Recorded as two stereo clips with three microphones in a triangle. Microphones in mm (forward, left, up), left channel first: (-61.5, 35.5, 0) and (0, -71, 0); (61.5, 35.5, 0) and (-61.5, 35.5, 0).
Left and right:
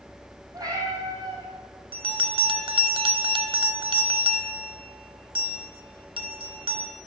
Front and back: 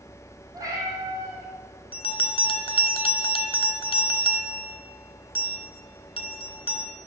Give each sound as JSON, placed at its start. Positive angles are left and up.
{"t": 0.5, "sound": "a cat meowing", "azimuth_deg": -120, "distance_m": 2.5}
{"t": 1.9, "sound": "a bell", "azimuth_deg": -30, "distance_m": 0.6}